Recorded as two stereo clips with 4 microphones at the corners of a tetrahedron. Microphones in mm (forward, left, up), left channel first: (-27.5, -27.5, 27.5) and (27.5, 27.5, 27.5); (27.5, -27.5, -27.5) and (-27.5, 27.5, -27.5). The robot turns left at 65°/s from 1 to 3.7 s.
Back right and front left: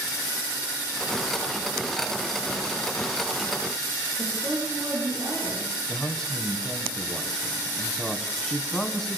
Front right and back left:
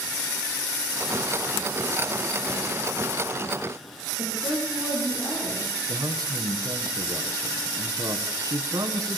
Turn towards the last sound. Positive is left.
turn(degrees=145)